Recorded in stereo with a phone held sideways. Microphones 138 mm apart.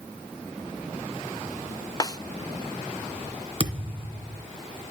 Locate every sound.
2.0 s a snare drum: 25° left (ahead or behind), 0.5 m
3.6 s a thud: 40° right (ahead or behind), 1.6 m